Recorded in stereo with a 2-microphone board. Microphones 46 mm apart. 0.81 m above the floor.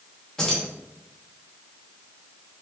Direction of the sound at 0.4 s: 15° left (ahead or behind).